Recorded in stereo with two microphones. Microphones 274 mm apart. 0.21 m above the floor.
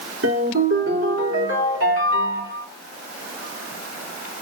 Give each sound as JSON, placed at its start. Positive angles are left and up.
{"t": 0.2, "sound": "a ringtone", "side_deg": -55, "distance_m": 3.5}